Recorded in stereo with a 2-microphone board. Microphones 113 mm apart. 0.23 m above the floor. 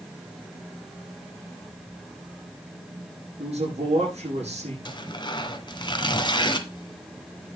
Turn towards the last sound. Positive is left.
turn(degrees=40)  # may be behind; listen again after turning